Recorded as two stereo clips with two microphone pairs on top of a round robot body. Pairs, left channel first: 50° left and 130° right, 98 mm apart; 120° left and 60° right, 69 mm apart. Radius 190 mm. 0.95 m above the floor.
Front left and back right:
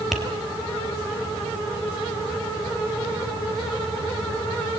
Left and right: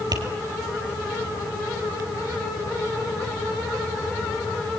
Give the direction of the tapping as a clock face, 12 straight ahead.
1 o'clock.